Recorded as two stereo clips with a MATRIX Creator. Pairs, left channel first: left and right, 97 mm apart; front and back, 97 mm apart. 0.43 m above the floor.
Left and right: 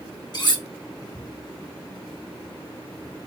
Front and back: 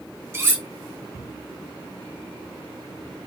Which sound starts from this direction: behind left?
Cutlery clinking, at 0.3 s.